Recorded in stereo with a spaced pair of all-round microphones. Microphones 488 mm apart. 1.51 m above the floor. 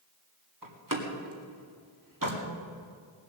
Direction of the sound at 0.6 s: 40° right (ahead or behind).